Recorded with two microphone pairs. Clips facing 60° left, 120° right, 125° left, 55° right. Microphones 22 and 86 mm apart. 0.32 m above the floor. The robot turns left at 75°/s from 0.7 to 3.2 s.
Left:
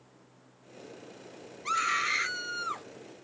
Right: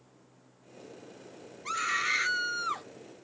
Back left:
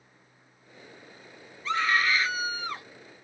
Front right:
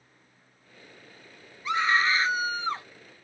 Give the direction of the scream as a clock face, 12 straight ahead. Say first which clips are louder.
Left 1 dB, front right 1 dB; 12 o'clock.